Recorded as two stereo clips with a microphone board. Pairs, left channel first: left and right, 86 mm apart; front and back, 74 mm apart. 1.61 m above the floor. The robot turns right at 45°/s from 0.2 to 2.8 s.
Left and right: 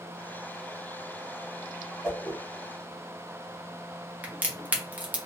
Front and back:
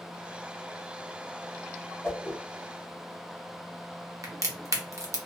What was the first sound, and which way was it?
A whoosh, 10° left.